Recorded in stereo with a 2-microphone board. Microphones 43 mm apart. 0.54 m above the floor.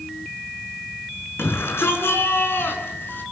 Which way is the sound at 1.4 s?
80° left.